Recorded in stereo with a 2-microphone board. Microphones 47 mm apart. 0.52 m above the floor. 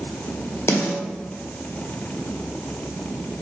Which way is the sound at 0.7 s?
70° left (ahead or behind).